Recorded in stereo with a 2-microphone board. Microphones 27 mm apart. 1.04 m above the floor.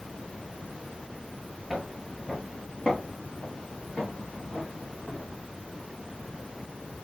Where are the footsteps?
Centre (ahead or behind), 1.2 m; by 5.4 s 60° left (ahead or behind), 3 m.